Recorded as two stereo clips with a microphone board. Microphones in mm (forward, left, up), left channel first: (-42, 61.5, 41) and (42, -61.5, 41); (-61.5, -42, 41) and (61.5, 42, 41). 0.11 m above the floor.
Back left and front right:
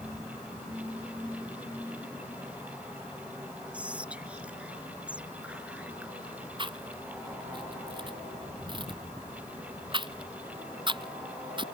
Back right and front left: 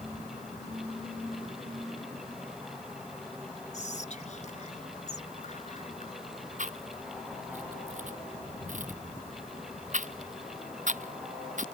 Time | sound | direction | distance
3.7 | whispering | 135° right | ?
6.6 | chewing | straight ahead | ?